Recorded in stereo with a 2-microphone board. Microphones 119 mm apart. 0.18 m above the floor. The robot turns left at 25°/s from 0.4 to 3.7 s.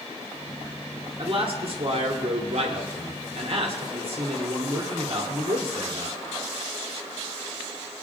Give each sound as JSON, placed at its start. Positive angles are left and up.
{"t": 1.2, "sound": "a man speaking", "azimuth_deg": -60, "distance_m": 2.0}